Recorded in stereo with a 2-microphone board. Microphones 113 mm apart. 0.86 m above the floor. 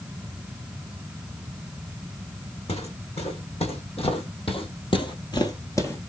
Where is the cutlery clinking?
No cutlery clinking in this recording.